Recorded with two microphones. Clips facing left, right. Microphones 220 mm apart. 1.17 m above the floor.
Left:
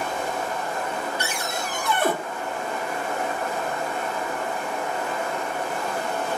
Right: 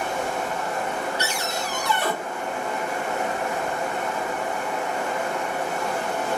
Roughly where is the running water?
Right.